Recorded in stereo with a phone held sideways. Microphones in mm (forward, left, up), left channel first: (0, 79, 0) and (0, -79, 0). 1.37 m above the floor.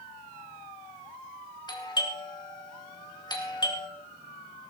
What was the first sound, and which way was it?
A doorbell, 30° left (ahead or behind).